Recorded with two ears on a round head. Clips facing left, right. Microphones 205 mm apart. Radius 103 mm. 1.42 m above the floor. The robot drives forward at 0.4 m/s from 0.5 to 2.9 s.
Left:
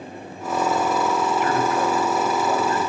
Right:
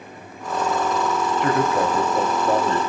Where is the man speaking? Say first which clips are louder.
Right 1 dB; 30° right (ahead or behind), 3 m; by 2.9 s 25° right (ahead or behind), 3.5 m.